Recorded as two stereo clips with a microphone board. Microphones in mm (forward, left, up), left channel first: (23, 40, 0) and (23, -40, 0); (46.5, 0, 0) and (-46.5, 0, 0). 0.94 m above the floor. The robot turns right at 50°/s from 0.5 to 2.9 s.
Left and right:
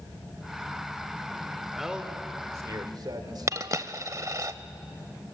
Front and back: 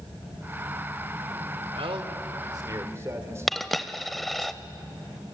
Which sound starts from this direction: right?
A dropped coin, at 3.5 s.